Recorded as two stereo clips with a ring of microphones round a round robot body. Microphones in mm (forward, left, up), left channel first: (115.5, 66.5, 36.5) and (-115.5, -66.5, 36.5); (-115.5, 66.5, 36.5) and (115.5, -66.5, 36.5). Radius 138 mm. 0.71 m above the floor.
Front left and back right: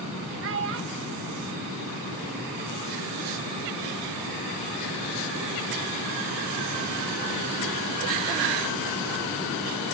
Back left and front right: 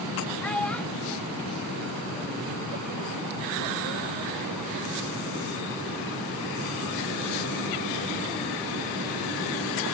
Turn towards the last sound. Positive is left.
turn(degrees=-125)